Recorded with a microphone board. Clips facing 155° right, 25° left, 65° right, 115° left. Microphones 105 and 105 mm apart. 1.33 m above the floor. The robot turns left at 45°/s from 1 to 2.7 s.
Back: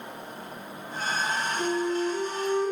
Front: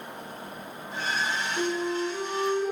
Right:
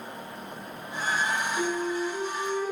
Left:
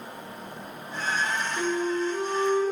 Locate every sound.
1.6 s a flute: 95° left, 2.0 m; by 2.7 s 45° left, 2.0 m